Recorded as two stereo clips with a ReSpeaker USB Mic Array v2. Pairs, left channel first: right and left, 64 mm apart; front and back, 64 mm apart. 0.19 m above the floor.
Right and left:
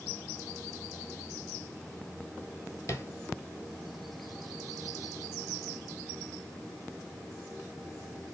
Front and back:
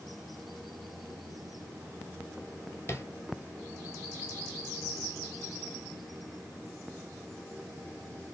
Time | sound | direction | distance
2.9 | tapping | 50° right | 1.0 m